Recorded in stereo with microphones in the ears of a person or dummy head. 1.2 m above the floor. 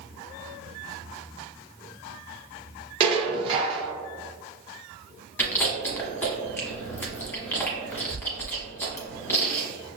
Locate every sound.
3.0 s dishes clattering: 35° right (ahead or behind), 0.7 m
5.4 s chewing: 10° left (ahead or behind), 1.0 m